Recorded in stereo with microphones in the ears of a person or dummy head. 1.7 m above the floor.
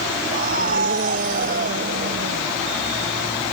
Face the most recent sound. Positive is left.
turn(degrees=-50)  # may be behind; listen again after turning